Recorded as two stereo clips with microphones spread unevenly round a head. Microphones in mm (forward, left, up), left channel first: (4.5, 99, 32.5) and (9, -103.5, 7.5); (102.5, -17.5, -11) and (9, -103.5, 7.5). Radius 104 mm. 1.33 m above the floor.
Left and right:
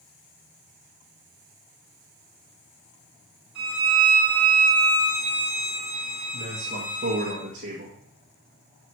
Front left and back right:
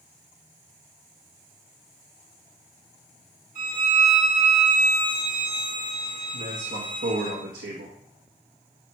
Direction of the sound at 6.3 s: 145° right.